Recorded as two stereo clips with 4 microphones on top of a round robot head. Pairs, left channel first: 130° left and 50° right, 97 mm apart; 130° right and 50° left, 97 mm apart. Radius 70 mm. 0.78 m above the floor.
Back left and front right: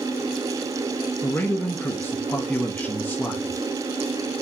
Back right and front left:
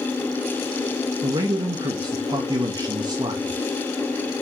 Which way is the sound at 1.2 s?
65° left.